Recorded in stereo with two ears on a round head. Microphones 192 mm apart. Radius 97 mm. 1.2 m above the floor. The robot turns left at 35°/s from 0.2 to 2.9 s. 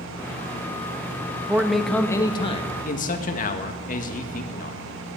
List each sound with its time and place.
1.5 s a man speaking: 170° right, 1.8 m; by 4.8 s 140° left, 1.8 m